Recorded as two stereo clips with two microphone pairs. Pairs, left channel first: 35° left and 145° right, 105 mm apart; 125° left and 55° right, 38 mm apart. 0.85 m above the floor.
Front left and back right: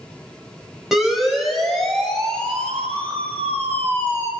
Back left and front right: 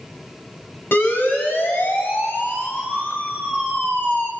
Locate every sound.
0.9 s a siren: 130° left, 7 m; by 4.3 s 100° left, 7 m